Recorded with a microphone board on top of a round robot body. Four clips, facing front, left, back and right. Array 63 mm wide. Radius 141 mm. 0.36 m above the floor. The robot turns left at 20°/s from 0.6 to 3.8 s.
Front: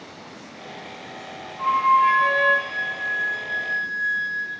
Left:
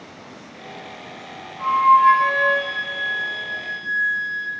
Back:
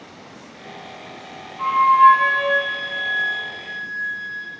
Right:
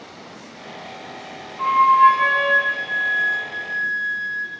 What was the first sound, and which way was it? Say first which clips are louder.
A flute: right 1 dB, back 5 dB; 125° right.